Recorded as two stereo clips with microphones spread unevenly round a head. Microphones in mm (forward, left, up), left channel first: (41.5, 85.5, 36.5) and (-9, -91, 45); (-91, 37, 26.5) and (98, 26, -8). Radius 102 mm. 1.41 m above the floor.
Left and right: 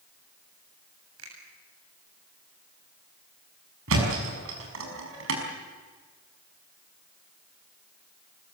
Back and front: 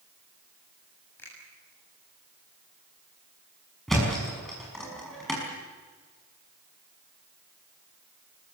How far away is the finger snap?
About 7.5 m.